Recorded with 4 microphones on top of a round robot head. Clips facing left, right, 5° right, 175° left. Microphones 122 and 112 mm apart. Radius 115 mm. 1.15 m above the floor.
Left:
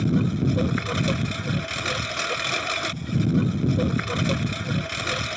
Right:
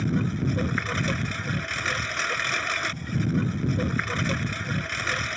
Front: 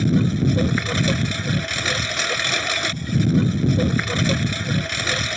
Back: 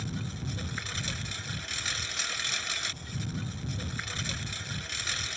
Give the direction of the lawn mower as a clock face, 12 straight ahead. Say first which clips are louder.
Left 4 dB, front 19 dB; 11 o'clock.